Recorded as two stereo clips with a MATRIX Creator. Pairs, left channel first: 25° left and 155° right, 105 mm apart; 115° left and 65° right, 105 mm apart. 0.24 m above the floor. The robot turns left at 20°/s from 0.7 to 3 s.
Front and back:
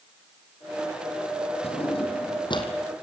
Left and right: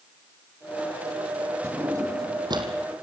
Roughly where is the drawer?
Ahead.